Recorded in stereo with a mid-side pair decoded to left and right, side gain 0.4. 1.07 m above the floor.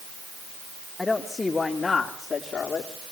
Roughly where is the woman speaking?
Ahead.